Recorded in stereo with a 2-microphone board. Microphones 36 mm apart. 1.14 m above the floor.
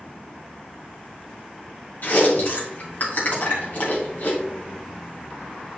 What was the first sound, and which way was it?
Chewing, 60° left (ahead or behind).